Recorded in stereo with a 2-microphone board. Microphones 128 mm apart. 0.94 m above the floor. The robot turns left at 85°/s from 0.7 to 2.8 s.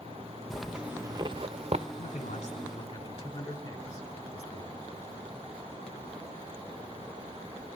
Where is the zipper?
Centre (ahead or behind), 0.7 m; by 1.9 s 55° right (ahead or behind), 0.7 m.